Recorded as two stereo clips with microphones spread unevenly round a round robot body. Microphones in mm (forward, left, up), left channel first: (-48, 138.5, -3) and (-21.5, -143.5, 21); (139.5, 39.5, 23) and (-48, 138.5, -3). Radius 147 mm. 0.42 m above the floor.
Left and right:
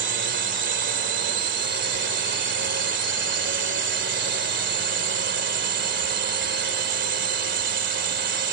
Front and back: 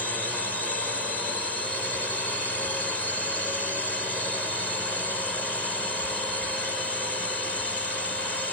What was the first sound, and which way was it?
A drone, 115° right.